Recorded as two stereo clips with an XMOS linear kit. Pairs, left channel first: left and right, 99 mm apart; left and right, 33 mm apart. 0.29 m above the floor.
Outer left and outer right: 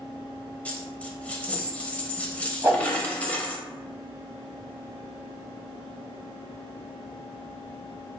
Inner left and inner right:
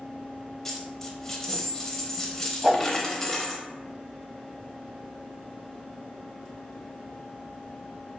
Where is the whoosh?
25° right (ahead or behind), 1.5 m.